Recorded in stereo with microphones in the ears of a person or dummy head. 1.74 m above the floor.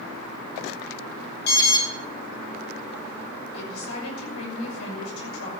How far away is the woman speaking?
About 6 m.